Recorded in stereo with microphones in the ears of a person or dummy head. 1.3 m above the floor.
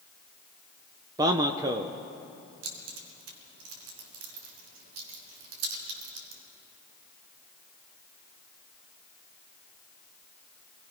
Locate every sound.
1.2 s a man speaking: 25° right (ahead or behind), 0.7 m
2.6 s keys jangling: 80° right, 3.5 m